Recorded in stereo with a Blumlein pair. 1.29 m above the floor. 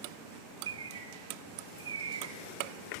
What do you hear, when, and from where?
0.7 s a bird: 70° right, 4.5 m